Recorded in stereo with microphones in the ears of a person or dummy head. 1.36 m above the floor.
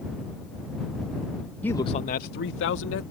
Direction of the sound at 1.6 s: 10° left (ahead or behind).